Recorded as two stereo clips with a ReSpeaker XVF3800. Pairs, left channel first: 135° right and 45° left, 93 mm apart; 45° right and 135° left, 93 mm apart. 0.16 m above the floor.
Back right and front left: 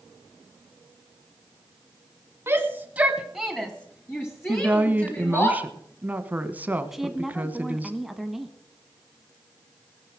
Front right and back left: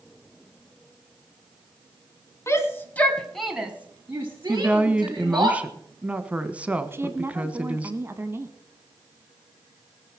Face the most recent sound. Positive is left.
turn(degrees=130)